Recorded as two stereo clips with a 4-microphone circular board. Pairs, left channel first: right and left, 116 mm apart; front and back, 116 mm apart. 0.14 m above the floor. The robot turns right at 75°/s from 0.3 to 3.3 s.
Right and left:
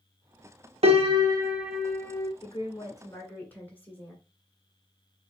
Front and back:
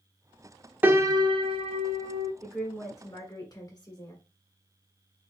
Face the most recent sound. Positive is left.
turn(degrees=-20)